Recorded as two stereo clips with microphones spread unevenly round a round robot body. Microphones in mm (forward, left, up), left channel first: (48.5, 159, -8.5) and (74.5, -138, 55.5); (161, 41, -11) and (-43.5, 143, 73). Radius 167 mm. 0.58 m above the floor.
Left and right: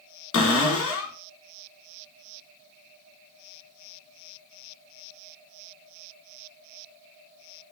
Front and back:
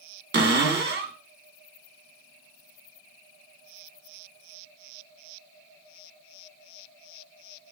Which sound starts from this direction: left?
A cupboard door, at 0.3 s.